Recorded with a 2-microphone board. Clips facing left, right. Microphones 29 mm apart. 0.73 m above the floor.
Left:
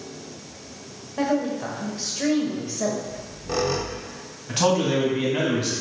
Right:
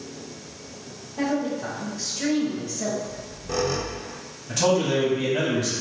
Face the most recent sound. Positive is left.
turn(degrees=30)  # may be behind; listen again after turning